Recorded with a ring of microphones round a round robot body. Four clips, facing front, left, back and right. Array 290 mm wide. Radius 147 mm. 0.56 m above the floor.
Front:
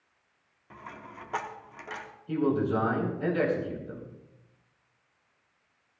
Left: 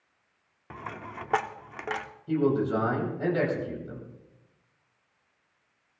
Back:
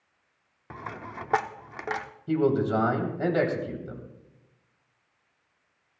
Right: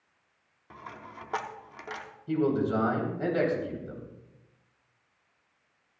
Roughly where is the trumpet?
I don't hear a trumpet.